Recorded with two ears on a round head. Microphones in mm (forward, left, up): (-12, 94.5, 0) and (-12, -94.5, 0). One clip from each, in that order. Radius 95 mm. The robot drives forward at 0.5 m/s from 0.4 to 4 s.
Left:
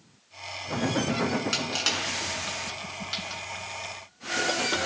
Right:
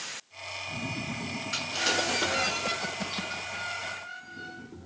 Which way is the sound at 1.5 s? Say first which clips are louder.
Right 4 dB; 45° left (ahead or behind).